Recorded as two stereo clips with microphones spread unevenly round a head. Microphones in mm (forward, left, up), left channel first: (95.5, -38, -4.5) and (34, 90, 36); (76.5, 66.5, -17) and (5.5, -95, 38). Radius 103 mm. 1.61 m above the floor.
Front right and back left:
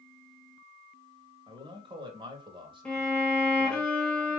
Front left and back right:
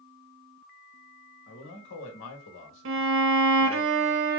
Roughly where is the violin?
Behind right.